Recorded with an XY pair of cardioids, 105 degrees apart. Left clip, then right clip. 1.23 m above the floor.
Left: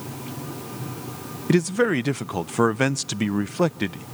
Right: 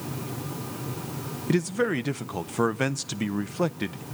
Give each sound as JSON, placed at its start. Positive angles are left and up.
{"t": 1.5, "sound": "a man speaking", "azimuth_deg": 30, "distance_m": 0.5}